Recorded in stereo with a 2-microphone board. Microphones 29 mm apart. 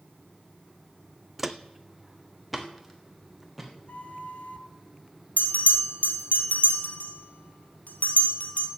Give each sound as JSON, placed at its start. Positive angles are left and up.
{"t": 1.4, "sound": "footsteps", "side_deg": -5, "distance_m": 0.6}
{"t": 3.9, "sound": "a flute", "side_deg": 60, "distance_m": 0.8}
{"t": 5.4, "sound": "a bell", "side_deg": 80, "distance_m": 1.6}